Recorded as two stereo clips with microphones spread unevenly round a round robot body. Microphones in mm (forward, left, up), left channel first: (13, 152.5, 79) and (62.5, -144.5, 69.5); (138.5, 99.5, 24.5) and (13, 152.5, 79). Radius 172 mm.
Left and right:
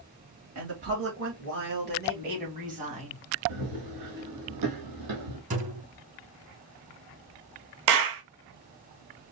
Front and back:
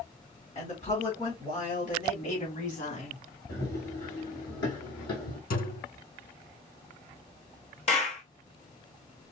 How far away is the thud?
About 3.5 m.